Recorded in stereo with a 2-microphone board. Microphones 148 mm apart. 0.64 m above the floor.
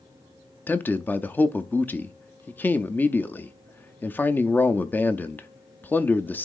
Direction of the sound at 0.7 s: 10° left (ahead or behind).